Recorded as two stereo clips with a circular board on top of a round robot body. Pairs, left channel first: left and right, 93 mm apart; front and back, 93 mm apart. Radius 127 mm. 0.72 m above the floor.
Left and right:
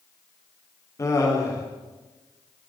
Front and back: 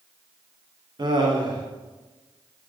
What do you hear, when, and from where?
1.0 s laughter: 145° left, 2.5 m